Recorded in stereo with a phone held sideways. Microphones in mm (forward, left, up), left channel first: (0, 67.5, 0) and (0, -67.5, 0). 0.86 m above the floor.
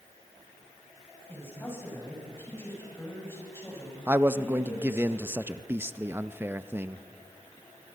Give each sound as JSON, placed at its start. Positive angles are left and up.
{"t": 1.3, "sound": "a man speaking", "side_deg": 20, "distance_m": 5.5}
{"t": 4.1, "sound": "a man speaking", "side_deg": -15, "distance_m": 0.6}